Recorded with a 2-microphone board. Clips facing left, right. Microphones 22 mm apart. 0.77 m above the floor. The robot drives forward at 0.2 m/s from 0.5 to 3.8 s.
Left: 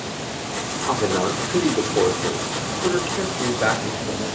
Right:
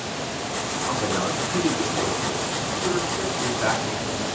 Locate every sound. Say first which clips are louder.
0.9 s a man speaking: left 5 dB; 60° left (ahead or behind), 2.5 m; by 4.2 s 55° left (ahead or behind), 3 m